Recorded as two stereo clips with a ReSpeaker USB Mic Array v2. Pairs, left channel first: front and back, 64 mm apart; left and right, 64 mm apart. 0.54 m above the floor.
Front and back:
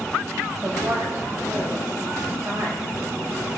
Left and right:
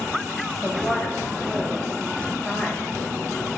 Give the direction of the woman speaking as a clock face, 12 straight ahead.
7 o'clock.